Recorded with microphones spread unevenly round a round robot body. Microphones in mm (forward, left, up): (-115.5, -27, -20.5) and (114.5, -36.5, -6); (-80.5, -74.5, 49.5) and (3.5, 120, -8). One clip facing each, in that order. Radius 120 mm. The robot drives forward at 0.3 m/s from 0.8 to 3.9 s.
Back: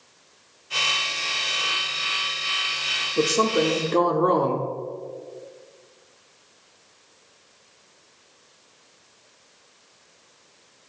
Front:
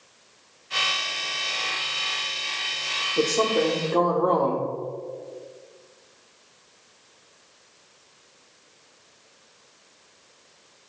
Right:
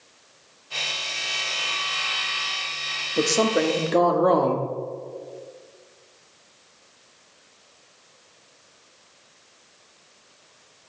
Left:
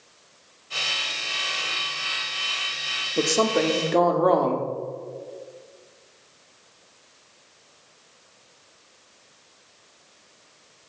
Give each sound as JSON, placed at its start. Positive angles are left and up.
{"t": 3.2, "sound": "a woman speaking", "azimuth_deg": 125, "distance_m": 0.8}